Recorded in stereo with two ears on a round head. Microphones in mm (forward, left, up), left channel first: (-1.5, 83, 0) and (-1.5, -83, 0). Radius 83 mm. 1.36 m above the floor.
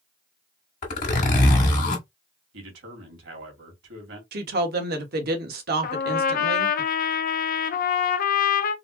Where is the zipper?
45° left (ahead or behind), 1.6 m.